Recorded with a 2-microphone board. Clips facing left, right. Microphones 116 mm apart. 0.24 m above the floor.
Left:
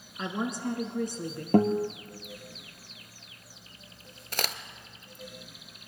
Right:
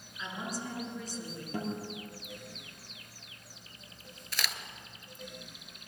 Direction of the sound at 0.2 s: 65° left (ahead or behind).